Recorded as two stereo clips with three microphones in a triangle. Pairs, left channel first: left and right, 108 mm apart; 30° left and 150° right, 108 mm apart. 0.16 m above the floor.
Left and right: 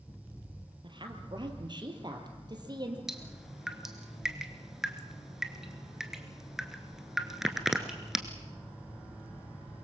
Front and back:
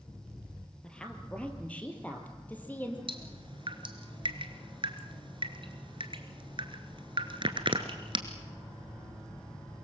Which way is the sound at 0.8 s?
50° right.